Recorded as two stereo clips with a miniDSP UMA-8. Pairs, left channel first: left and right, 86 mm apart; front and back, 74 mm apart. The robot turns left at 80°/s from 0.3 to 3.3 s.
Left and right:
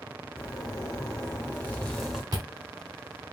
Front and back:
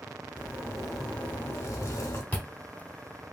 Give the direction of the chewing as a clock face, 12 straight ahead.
2 o'clock.